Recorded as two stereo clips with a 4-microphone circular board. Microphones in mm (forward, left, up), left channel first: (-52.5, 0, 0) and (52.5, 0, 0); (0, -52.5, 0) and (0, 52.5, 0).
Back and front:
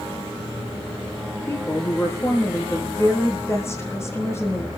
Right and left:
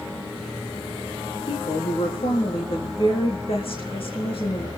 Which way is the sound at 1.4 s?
115° right.